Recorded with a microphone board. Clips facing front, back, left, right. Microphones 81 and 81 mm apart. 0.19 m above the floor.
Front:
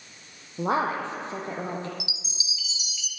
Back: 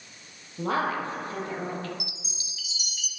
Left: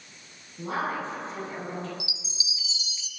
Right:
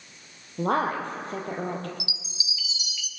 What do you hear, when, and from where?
0.6 s a woman speaking: 65° right, 5 m
2.0 s a chime: 145° left, 1.1 m